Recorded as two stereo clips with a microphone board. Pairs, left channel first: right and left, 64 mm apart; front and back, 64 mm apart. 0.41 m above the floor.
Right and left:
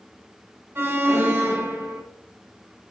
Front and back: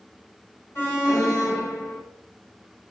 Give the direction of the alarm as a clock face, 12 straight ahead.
11 o'clock.